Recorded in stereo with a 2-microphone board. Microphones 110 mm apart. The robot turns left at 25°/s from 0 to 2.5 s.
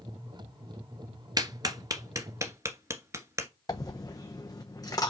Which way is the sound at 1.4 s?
35° right (ahead or behind).